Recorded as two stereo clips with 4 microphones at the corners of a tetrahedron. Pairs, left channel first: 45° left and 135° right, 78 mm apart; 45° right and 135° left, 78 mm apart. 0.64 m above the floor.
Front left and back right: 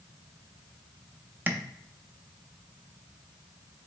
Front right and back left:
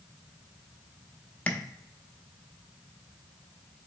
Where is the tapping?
95° right, 0.8 m.